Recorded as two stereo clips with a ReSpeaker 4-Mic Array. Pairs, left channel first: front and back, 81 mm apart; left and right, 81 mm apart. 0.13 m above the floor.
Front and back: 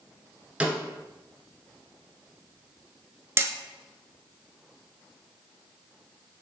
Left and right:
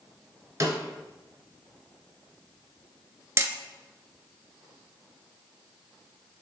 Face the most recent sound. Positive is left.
turn(degrees=-135)